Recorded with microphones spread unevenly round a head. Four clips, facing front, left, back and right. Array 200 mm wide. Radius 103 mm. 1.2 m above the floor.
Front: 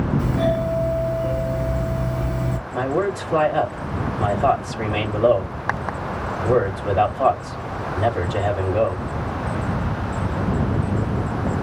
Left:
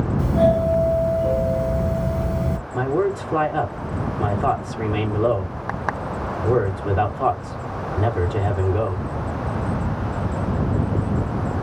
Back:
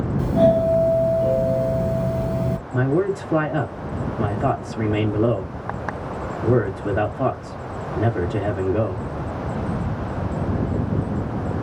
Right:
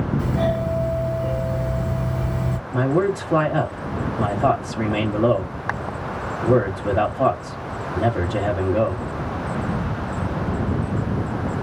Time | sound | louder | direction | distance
0.2 | a doorbell | left 8 dB, back 9 dB | straight behind | 1.4 m
2.7 | a man speaking | right 2 dB, back 1 dB | 130° right | 1.8 m